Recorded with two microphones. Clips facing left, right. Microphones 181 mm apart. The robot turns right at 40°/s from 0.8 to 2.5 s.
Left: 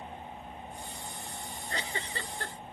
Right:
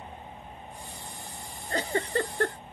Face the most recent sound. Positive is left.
turn(degrees=-100)